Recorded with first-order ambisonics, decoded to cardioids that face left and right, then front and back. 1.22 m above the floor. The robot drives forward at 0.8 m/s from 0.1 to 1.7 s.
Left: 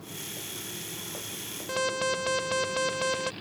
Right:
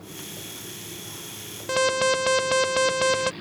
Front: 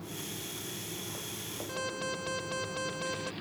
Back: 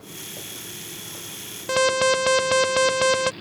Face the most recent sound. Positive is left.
turn(degrees=-155)